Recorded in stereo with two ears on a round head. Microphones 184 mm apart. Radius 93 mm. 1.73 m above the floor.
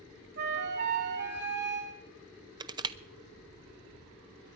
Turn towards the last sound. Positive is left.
turn(degrees=-20)  # may be behind; listen again after turning